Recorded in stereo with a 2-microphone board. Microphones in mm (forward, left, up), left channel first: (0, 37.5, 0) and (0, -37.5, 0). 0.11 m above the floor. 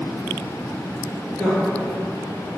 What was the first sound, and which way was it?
A woman speaking, 35° left (ahead or behind).